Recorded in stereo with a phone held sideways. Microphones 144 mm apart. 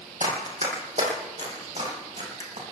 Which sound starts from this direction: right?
Running footsteps, at 0.2 s.